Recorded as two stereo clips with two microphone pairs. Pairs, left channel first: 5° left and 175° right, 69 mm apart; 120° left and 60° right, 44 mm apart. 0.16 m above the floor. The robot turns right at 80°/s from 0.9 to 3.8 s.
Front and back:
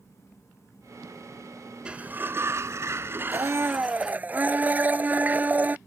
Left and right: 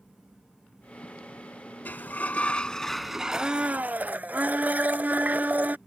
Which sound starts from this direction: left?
A sliding door, at 1.9 s.